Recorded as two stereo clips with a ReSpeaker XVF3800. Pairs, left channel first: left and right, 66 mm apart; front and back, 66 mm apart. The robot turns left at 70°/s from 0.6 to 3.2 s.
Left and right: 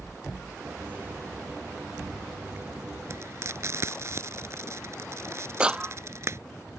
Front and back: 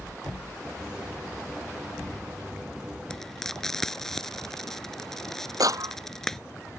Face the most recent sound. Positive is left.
turn(degrees=-165)